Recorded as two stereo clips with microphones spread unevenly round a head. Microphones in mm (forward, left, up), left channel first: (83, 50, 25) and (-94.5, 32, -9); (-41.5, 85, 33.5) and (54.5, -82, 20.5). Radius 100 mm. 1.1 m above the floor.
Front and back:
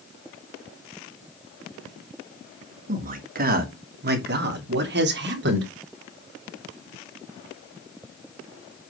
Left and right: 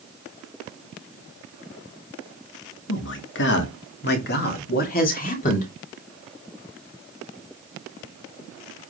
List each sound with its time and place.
2.9 s a man speaking: 145° left, 2.5 m; by 5.7 s 170° left, 3.5 m